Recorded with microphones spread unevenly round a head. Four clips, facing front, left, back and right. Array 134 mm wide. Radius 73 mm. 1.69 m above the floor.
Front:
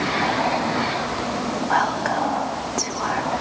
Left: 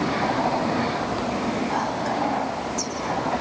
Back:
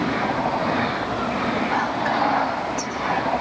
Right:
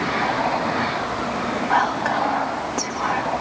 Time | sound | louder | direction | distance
1.7 | whispering | right 5 dB, front 1 dB | 55° right | 2 m